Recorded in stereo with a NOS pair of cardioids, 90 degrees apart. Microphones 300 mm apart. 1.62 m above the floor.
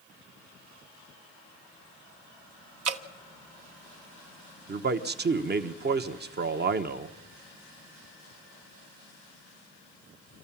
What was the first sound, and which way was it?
Dripping, 55° right.